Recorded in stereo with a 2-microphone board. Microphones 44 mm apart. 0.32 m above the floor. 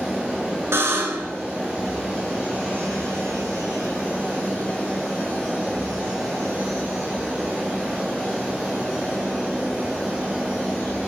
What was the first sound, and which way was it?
A buzzer, 70° right (ahead or behind).